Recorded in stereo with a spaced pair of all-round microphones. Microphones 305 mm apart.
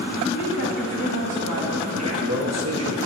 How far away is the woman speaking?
About 2 m.